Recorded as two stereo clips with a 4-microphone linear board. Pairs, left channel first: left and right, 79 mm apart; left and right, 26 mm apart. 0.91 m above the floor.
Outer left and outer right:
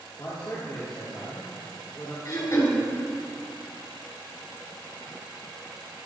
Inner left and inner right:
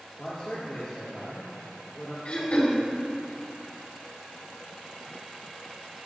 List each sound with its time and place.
0.2 s a man speaking: 45° left (ahead or behind), 1.9 m
2.2 s throat clearing: 50° left (ahead or behind), 2 m